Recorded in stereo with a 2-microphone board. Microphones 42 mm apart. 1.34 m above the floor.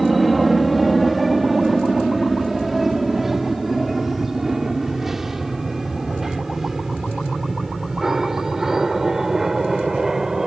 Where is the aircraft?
5° right (ahead or behind); by 10.5 s 15° right (ahead or behind).